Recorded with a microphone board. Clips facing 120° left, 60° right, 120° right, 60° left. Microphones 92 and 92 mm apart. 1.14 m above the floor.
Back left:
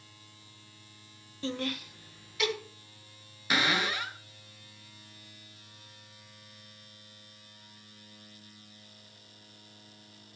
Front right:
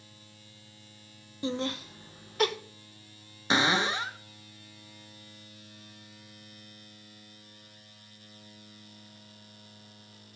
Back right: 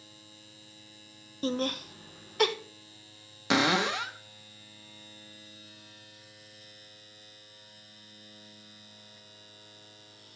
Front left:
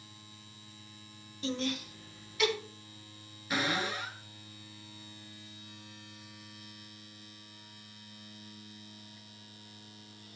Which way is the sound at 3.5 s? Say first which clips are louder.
Front right 3 dB, back right 7 dB; 125° right.